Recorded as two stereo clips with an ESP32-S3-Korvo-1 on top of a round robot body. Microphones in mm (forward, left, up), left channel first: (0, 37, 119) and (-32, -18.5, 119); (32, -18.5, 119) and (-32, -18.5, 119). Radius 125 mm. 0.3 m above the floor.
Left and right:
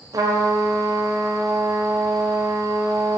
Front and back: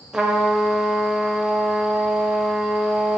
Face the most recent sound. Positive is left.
turn(degrees=-100)